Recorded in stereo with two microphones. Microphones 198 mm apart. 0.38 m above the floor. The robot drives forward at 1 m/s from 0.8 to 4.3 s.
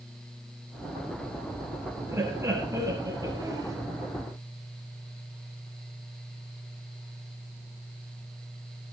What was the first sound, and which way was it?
Laughter, 15° right (ahead or behind).